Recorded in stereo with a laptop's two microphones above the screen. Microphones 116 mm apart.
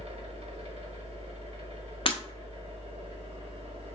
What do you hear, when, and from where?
0.0 s a machine running: 60° right (ahead or behind), 0.9 m
2.0 s breaking glass: 50° left (ahead or behind), 0.5 m